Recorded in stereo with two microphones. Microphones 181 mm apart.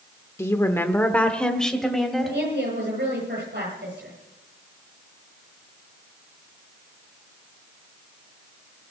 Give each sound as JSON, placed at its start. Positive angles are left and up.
{"t": 0.4, "sound": "a woman speaking", "side_deg": 15, "distance_m": 1.0}
{"t": 2.2, "sound": "a woman speaking", "side_deg": -75, "distance_m": 8.0}